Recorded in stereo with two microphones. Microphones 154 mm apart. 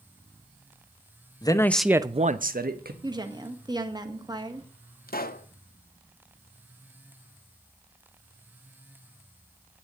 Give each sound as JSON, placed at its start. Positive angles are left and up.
{"t": 1.4, "sound": "a man speaking", "side_deg": 25, "distance_m": 1.0}
{"t": 3.0, "sound": "a woman speaking", "side_deg": -25, "distance_m": 1.5}
{"t": 5.1, "sound": "a pop", "side_deg": 75, "distance_m": 0.9}